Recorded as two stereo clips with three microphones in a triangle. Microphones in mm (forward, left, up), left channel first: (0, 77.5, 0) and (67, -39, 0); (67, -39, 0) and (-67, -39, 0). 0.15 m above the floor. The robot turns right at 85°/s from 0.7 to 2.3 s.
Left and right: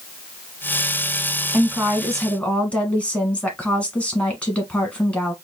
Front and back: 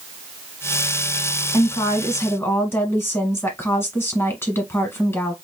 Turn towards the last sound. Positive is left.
turn(degrees=50)